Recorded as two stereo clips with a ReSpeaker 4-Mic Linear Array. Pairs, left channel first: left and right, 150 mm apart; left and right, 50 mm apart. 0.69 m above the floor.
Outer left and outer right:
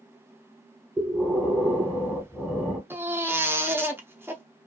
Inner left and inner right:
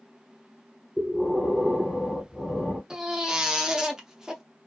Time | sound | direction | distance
1.0 | breathing | 5° right (ahead or behind) | 1.2 m
2.9 | a baby crying | 15° right (ahead or behind) | 0.5 m